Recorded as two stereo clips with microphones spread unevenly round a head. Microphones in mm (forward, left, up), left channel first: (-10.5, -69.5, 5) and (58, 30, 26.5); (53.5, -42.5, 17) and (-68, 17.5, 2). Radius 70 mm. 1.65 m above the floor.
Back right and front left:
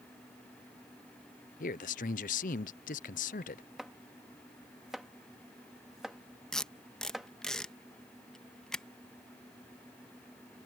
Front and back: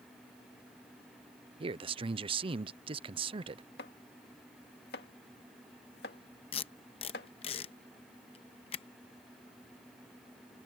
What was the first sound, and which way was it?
A man speaking, 155° right.